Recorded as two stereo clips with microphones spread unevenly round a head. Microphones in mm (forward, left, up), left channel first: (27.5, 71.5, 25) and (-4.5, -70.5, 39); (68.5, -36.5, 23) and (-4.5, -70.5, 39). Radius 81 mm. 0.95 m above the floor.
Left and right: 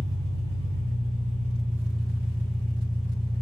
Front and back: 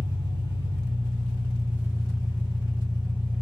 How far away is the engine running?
About 1.0 m.